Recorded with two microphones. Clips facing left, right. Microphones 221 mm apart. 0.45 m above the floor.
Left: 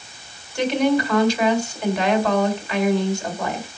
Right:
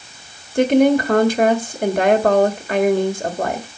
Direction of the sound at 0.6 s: 50° right (ahead or behind).